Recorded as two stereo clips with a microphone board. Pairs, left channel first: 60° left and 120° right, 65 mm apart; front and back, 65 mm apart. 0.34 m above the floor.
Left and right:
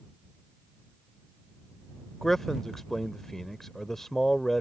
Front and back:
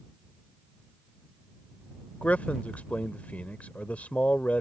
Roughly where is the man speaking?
Ahead.